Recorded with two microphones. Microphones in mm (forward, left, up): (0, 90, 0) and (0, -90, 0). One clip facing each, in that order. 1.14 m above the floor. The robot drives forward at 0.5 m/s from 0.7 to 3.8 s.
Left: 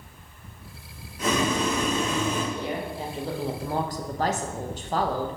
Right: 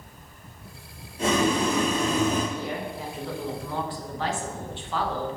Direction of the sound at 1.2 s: 30° right (ahead or behind).